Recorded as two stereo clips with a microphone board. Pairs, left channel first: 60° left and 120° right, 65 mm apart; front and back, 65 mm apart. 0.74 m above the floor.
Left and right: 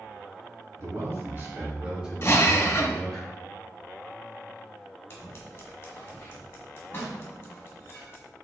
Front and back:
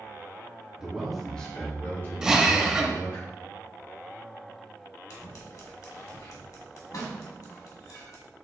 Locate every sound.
0.8 s a man speaking: 100° right, 1.7 m; by 3.2 s 25° right, 3 m
2.2 s a drill: 105° left, 0.7 m
5.1 s scissors: 10° left, 1.5 m